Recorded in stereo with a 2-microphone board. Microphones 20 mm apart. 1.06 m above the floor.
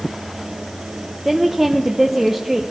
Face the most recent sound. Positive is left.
turn(degrees=-15)  # may be behind; listen again after turning